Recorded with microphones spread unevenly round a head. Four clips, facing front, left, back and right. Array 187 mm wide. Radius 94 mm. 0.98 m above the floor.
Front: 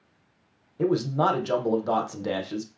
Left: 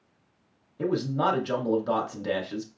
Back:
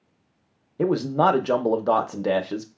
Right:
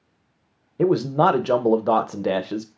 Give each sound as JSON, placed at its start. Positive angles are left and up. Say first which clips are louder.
{"t": 0.8, "sound": "a man speaking", "louder": "right 8 dB, back 3 dB", "azimuth_deg": -120, "distance_m": 0.5}